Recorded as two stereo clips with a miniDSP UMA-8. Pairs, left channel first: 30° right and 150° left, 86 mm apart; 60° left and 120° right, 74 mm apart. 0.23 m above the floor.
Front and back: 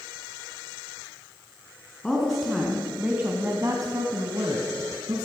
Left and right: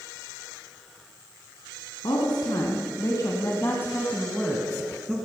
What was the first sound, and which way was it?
A woman speaking, 55° left.